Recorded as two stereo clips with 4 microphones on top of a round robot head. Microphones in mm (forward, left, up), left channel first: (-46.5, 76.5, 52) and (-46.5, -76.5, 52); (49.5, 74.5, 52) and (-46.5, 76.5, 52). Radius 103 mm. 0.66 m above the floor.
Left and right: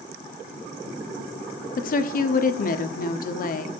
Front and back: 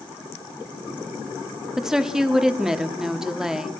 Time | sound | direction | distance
1.8 | a woman speaking | 95° left | 1.3 m